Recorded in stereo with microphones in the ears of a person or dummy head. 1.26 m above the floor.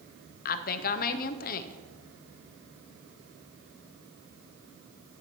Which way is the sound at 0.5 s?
40° left (ahead or behind).